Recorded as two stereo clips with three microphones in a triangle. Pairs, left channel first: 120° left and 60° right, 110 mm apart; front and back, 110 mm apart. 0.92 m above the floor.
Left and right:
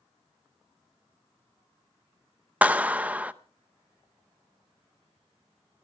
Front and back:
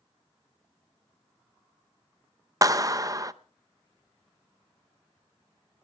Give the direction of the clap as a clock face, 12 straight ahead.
4 o'clock.